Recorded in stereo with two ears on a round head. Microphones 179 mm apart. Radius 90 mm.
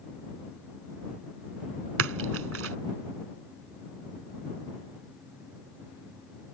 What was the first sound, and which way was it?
A splash, 80° right.